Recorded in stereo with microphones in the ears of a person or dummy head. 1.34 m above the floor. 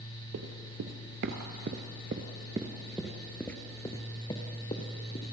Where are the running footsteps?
55° right (ahead or behind), 2 m; by 5.3 s 35° left (ahead or behind), 2.5 m.